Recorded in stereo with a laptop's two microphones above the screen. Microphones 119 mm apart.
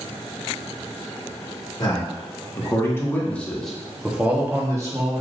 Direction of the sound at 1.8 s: 40° left (ahead or behind).